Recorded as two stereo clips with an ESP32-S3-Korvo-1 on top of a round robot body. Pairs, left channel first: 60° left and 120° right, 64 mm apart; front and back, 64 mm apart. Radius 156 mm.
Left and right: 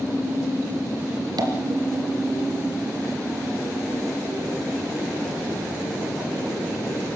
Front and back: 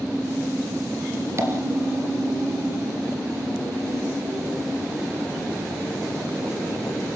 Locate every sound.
1.4 s tapping: 135° right, 3.5 m